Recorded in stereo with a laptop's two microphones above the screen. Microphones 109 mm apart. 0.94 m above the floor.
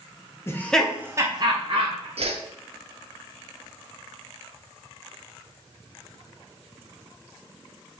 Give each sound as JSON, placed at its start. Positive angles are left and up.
{"t": 0.5, "sound": "laughter", "side_deg": 25, "distance_m": 0.6}
{"t": 2.2, "sound": "a whoosh", "side_deg": -65, "distance_m": 0.5}